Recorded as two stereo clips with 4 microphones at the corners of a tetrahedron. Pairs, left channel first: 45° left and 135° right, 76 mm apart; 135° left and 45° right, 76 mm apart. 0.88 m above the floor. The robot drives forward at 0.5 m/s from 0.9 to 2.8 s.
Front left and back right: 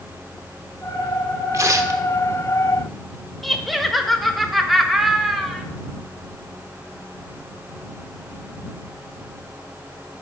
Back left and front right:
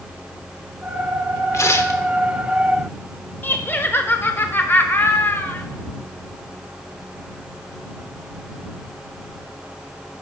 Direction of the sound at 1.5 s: 175° right.